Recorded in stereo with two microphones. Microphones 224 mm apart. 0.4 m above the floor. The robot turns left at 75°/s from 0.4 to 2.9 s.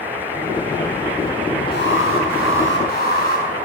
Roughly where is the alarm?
Behind left.